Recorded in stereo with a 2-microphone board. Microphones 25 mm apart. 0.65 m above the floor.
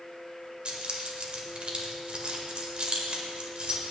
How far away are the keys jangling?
About 1.7 m.